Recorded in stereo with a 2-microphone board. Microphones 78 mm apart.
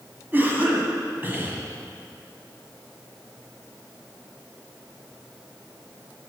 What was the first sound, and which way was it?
A cough, 25° right (ahead or behind).